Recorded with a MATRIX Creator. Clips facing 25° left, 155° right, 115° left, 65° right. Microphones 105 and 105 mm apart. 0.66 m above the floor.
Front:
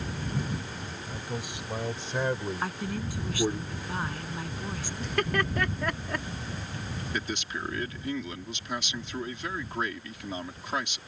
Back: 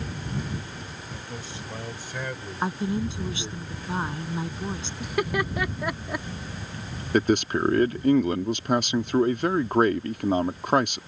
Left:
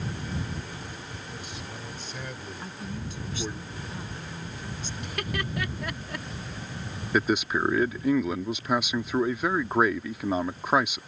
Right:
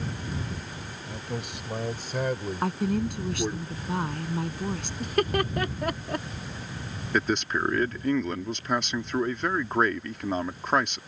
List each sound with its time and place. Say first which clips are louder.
1.1 s a man speaking: front 4 dB, right 5 dB; 55° right; by 3.6 s straight ahead
2.6 s a woman speaking: back 6 dB, right 13 dB; 90° right
5.0 s laughter: back 2 dB, right 9 dB; 85° right
7.1 s a man speaking: back 15 dB, left 1 dB; 165° right